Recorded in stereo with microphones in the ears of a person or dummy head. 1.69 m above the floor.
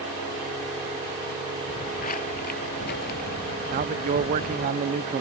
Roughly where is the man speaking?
Right.